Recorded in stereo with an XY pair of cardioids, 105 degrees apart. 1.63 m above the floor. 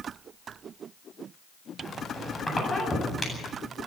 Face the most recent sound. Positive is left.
turn(degrees=25)